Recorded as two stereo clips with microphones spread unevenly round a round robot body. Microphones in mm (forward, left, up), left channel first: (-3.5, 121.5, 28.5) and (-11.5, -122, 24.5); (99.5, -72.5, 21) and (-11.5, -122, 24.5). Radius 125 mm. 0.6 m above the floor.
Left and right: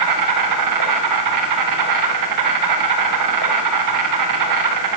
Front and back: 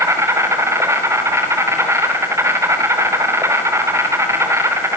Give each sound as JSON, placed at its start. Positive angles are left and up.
{"t": 0.0, "sound": "an insect", "azimuth_deg": -90, "distance_m": 7.5}